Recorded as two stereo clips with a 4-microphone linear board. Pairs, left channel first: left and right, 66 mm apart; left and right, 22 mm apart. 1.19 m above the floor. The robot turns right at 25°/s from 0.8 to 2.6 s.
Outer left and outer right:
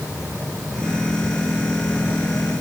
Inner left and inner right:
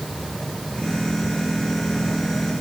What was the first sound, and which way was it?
Only background noise.